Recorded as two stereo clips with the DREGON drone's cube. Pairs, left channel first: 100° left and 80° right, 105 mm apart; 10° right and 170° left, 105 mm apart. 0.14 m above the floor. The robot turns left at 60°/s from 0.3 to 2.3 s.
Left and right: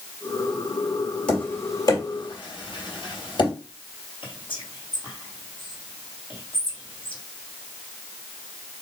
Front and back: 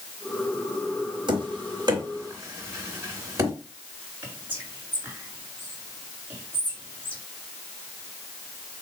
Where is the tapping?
175° left, 2.5 m; by 3.5 s 115° left, 2.5 m.